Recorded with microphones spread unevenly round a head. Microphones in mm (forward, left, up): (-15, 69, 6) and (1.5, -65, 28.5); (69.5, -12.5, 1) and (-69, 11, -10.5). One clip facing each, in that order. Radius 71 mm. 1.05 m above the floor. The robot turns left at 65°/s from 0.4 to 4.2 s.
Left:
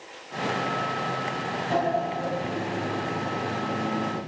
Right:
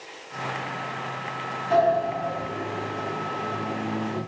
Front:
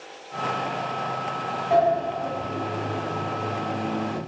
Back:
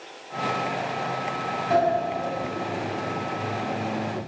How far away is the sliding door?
About 2.5 m.